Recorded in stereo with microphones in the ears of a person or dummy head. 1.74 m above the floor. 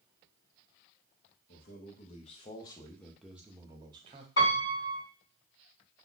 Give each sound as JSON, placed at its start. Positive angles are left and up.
{"t": 1.5, "sound": "a man speaking", "side_deg": 55, "distance_m": 1.1}
{"t": 4.4, "sound": "a piano", "side_deg": 25, "distance_m": 2.0}